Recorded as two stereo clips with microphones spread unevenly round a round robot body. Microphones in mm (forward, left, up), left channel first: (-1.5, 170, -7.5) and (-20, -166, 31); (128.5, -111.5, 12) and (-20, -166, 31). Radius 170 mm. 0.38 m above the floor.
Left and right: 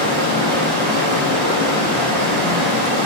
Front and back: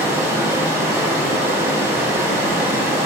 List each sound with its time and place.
0.0 s running water: 85° right, 1.2 m